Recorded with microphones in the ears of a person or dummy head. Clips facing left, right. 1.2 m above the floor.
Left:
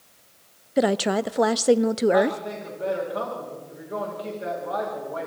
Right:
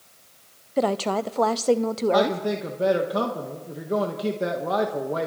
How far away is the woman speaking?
About 0.5 m.